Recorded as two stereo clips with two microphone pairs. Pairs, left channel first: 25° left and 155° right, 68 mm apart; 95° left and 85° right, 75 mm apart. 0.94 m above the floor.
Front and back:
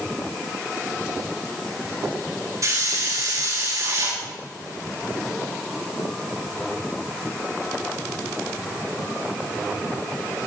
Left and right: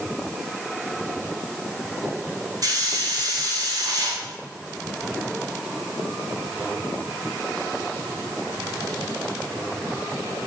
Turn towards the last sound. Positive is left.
turn(degrees=-120)